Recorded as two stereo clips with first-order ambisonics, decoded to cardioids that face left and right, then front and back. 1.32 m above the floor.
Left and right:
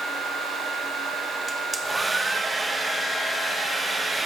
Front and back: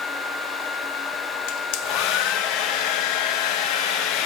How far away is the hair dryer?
About 0.8 m.